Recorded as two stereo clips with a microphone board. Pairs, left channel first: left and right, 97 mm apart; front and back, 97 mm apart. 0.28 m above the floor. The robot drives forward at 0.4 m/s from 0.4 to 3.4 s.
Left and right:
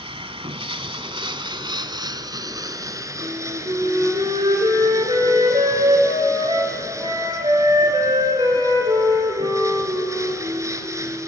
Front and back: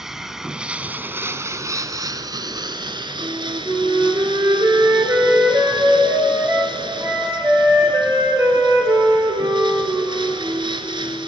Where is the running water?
95° right, 0.9 m; by 11.3 s 145° right, 1.6 m.